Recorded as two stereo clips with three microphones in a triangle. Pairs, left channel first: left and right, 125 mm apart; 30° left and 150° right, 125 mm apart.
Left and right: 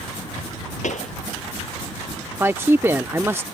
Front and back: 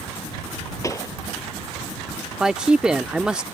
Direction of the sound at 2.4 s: 80° right.